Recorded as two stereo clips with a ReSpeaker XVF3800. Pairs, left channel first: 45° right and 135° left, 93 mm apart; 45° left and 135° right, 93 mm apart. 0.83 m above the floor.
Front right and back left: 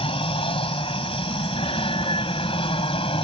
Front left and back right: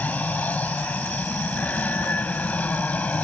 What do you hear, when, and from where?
0.0 s an aircraft: 30° right